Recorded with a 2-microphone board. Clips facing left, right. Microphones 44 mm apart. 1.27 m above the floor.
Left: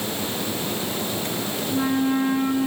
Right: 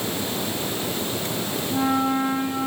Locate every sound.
1.7 s a flute: 10° right (ahead or behind), 3.5 m